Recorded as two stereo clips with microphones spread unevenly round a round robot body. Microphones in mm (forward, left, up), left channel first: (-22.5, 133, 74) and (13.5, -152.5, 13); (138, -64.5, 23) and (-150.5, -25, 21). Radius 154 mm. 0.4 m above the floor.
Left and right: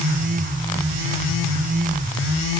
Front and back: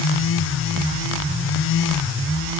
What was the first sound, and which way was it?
Only background noise.